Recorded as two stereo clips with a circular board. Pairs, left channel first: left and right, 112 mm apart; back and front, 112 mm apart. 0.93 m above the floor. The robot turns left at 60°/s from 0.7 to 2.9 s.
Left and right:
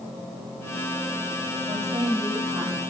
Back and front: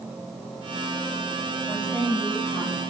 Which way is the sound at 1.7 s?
95° right.